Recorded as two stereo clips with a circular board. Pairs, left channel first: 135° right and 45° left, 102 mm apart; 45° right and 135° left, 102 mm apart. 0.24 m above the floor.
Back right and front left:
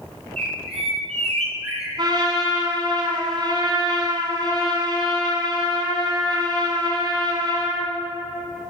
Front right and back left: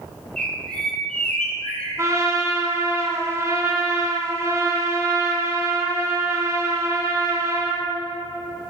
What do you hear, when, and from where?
0.4 s a bird: 35° left, 1.9 m
2.0 s a trumpet: 80° left, 2.0 m